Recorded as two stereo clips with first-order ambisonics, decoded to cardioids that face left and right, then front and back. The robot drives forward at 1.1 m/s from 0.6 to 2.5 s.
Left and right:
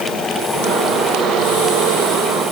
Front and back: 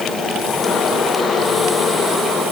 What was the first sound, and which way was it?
Only background noise.